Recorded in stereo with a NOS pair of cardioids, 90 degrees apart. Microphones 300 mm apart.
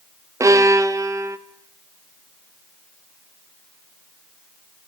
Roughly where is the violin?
Ahead.